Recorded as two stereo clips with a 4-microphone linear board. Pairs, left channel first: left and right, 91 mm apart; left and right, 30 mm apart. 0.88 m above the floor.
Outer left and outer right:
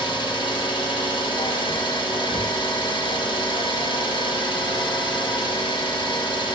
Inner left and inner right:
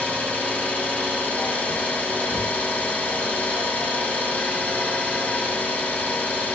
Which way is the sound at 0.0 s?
55° left (ahead or behind).